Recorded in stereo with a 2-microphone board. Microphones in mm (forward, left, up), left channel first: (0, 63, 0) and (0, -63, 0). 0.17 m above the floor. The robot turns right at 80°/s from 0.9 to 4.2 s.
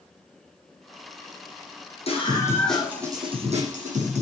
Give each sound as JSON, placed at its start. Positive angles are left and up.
{"t": 2.1, "sound": "a scream", "azimuth_deg": 125, "distance_m": 8.0}